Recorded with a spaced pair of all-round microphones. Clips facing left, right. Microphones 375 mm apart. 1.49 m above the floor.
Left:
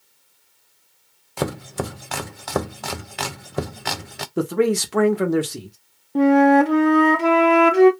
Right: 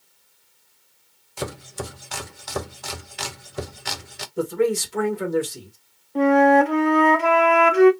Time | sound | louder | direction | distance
1.4 | chopping | left 6 dB | 70° left (ahead or behind) | 0.5 m
4.4 | a man speaking | left 2 dB | 75° left (ahead or behind) | 1.0 m
6.2 | a flute | left 2 dB | 50° left (ahead or behind) | 0.7 m